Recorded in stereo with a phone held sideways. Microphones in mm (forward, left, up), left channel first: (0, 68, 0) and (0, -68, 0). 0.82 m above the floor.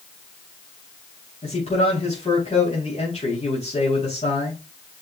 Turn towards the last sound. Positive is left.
turn(degrees=55)  # may be behind; listen again after turning